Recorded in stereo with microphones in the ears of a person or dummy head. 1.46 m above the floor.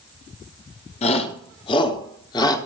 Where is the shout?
35° left (ahead or behind), 4 m; by 2.6 s 20° left (ahead or behind), 4.5 m.